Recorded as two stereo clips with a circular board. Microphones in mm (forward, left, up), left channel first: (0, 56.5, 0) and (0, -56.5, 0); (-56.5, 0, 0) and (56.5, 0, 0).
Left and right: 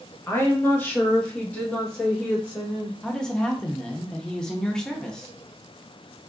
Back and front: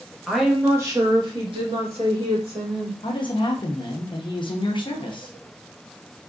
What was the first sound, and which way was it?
A woman speaking, 100° left.